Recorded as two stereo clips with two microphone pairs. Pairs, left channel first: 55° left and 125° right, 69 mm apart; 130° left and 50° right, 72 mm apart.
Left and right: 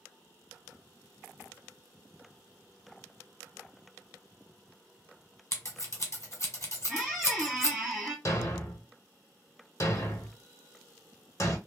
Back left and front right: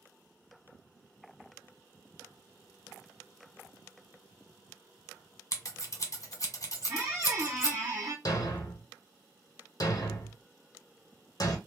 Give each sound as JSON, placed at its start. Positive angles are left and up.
{"t": 5.5, "sound": "scissors", "azimuth_deg": 95, "distance_m": 1.0}
{"t": 6.9, "sound": "a squeak", "azimuth_deg": -35, "distance_m": 1.4}
{"t": 8.2, "sound": "a thud", "azimuth_deg": 100, "distance_m": 0.9}